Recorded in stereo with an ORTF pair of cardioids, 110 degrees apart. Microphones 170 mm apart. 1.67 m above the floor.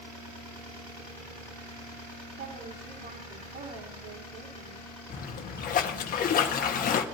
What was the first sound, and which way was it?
A woman speaking, 65° right.